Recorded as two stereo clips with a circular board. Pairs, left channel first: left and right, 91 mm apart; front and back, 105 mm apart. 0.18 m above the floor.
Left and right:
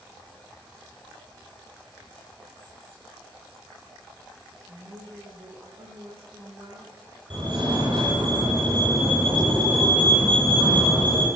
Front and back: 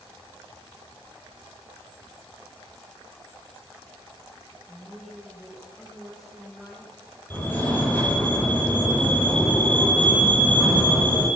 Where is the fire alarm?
75° right, 9 m.